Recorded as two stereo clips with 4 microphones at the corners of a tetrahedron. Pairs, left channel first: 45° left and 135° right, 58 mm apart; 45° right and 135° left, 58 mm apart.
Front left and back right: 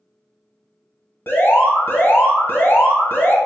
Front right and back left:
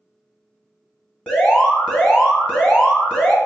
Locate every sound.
1.3 s an alarm: 20° left, 1.7 m